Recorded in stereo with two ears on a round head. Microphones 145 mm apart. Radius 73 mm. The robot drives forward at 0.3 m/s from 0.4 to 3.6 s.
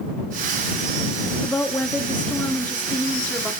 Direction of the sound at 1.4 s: 10° left (ahead or behind).